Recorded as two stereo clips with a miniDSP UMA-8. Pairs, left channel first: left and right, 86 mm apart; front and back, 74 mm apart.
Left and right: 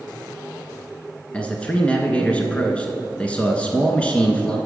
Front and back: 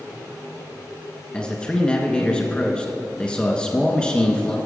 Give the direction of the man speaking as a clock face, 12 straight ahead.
10 o'clock.